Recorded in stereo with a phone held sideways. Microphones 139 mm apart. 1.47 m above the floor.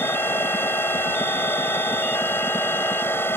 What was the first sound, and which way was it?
A machine running, 15° left (ahead or behind).